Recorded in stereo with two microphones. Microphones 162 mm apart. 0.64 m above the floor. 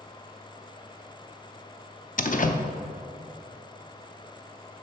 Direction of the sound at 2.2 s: 55° left (ahead or behind).